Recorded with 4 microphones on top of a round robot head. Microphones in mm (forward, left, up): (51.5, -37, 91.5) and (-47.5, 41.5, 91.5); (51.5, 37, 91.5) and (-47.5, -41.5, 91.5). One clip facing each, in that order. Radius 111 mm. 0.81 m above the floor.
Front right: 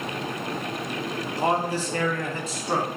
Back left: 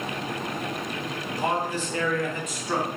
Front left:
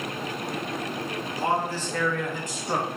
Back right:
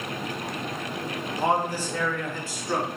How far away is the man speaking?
About 1.0 m.